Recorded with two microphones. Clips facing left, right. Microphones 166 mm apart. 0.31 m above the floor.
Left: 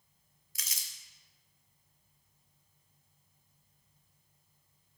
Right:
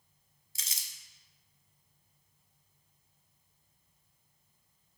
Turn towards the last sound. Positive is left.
turn(degrees=-30)  # may be behind; listen again after turning